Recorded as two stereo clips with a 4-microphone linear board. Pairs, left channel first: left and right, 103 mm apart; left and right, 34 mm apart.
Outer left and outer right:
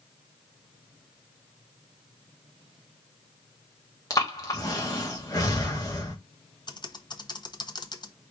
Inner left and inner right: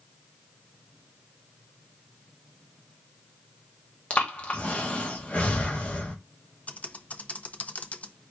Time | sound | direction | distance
4.1 | breathing | 35° left (ahead or behind) | 1.2 m
6.7 | typing on a keyboard | 40° left (ahead or behind) | 0.5 m